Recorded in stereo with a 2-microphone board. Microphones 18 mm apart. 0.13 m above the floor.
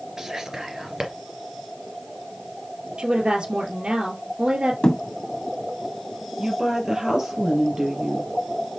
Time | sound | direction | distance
0.2 | whispering | 30° right (ahead or behind) | 2.5 m
3.0 | a woman speaking | 60° right (ahead or behind) | 2.5 m
4.8 | a thud | 50° left (ahead or behind) | 2.5 m
6.4 | a woman speaking | 35° right (ahead or behind) | 3.5 m